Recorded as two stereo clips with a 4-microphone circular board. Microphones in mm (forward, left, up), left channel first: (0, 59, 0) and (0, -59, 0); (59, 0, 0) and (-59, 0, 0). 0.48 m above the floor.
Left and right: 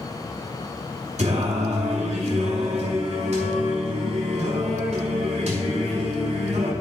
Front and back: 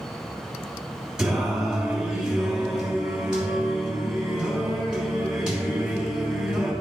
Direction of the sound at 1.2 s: 100° right.